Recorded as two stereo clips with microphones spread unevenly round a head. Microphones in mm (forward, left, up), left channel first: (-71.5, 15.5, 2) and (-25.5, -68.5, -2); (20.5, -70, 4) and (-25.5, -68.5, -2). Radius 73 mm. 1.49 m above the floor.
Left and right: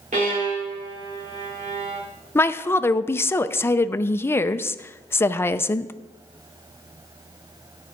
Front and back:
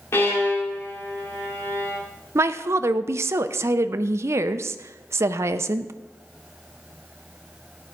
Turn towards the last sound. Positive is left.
turn(degrees=180)